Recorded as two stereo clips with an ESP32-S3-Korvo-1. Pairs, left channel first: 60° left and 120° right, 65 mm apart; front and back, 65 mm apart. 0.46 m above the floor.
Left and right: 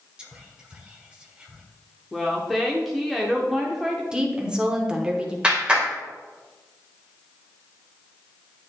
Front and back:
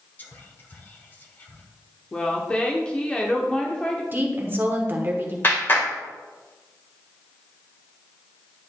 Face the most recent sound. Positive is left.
turn(degrees=-50)